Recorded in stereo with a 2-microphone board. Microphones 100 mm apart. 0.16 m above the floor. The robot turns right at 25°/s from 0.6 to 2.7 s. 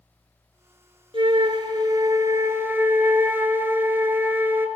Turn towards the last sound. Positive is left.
turn(degrees=-25)